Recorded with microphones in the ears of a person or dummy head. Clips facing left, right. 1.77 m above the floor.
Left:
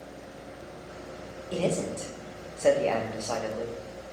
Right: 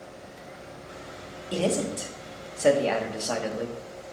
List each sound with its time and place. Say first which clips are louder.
1.5 s a man speaking: right 2 dB; 15° right (ahead or behind), 0.5 m